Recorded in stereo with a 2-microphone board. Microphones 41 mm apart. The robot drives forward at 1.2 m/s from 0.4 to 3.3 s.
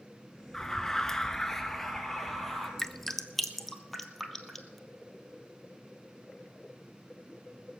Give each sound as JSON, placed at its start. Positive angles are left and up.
{"t": 0.5, "sound": "an alarm", "side_deg": 10, "distance_m": 1.0}
{"t": 2.8, "sound": "dripping", "side_deg": 10, "distance_m": 0.6}